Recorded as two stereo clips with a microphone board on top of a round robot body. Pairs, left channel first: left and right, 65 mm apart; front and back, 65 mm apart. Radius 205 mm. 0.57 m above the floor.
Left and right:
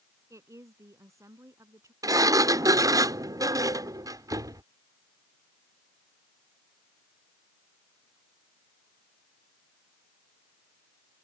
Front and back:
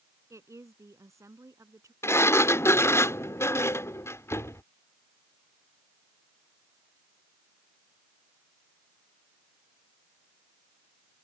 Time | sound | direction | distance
0.3 | a woman speaking | 135° right | ?
2.0 | a sliding door | 55° right | ?